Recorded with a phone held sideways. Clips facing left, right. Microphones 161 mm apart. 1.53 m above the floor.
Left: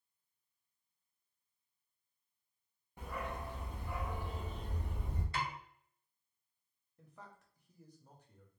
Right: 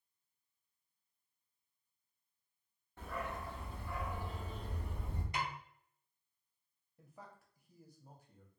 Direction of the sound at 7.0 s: 10° right (ahead or behind).